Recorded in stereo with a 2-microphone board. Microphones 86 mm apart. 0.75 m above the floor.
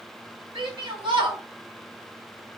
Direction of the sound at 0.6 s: 70° right (ahead or behind).